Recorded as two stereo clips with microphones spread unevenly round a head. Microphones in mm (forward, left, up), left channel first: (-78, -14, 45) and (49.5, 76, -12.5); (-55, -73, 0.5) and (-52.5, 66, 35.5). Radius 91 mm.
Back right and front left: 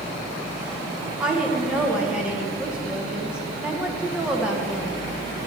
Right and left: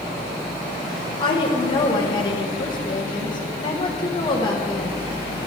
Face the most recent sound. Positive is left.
turn(degrees=-40)